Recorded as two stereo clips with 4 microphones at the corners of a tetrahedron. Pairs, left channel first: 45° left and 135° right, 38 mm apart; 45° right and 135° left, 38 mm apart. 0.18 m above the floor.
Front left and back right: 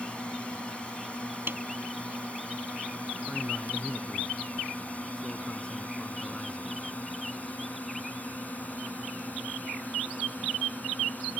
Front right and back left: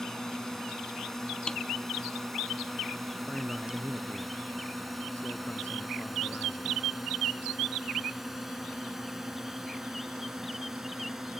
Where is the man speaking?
15° right.